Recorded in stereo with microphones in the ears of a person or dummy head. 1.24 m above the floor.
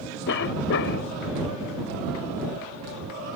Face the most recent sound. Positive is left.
turn(degrees=65)  # may be behind; listen again after turning